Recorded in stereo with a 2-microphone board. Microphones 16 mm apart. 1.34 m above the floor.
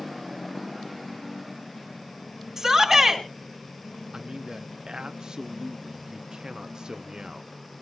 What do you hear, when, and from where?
2.6 s a shout: 15° right (ahead or behind), 3 m
4.1 s a man speaking: 40° right (ahead or behind), 0.6 m